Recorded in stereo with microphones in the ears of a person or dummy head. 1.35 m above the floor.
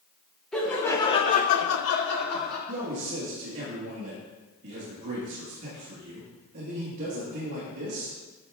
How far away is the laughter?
About 1.4 m.